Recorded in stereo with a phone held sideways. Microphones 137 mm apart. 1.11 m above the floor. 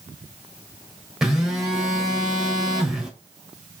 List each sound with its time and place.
1.2 s a phone buzzing: 5° right (ahead or behind), 3 m